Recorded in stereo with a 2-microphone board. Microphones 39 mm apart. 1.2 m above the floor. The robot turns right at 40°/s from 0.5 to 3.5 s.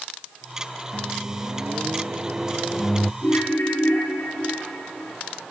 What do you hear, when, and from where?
0.9 s a microwave: 75° right, 0.5 m; by 3.1 s 10° left, 0.5 m
3.2 s a ringtone: 70° left (ahead or behind), 8 m; by 5.2 s 60° left (ahead or behind), 8 m